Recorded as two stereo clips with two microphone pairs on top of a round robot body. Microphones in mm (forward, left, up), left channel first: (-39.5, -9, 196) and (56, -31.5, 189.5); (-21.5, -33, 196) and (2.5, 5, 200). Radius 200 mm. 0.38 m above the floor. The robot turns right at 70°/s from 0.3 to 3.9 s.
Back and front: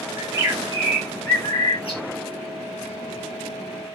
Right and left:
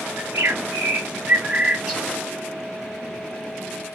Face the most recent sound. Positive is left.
turn(degrees=-70)